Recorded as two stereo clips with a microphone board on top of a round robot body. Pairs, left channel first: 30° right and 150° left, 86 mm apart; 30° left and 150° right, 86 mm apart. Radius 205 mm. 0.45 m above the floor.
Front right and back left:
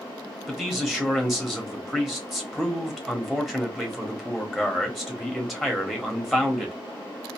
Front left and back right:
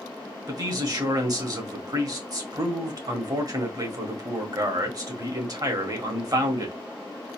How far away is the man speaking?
About 1.9 m.